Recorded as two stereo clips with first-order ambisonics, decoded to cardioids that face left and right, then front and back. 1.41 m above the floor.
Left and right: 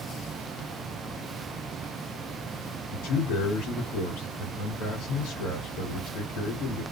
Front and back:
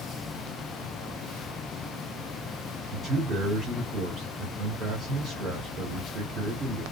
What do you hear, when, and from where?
2.9 s a man speaking: 110° left, 2.5 m